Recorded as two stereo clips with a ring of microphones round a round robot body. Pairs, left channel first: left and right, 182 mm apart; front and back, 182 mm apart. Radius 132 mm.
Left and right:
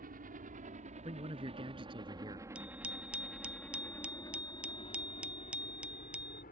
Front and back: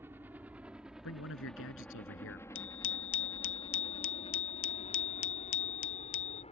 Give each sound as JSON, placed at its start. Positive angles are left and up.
{"t": 0.0, "sound": "a helicopter", "azimuth_deg": -105}
{"t": 1.0, "sound": "a man speaking", "azimuth_deg": -20}
{"t": 2.5, "sound": "a bicycle bell", "azimuth_deg": -5}